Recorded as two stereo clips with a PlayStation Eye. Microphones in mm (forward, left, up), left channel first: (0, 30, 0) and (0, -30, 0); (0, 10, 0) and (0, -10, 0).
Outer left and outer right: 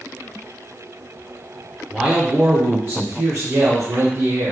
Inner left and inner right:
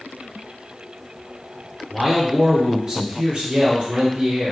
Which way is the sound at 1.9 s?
10° right (ahead or behind).